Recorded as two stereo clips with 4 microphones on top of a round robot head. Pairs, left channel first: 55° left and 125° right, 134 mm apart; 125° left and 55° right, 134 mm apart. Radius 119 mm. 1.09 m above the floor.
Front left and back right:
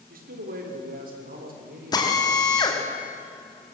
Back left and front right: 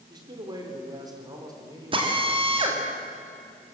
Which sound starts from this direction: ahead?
A drill, at 1.9 s.